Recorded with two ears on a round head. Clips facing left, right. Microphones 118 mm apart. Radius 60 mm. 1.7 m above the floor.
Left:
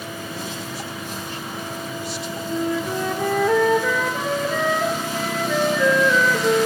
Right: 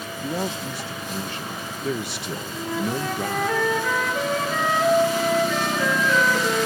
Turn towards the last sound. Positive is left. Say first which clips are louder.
# left 4 dB
turn(degrees=80)